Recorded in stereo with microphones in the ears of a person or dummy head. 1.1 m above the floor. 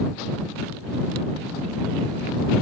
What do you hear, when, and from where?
Only background noise.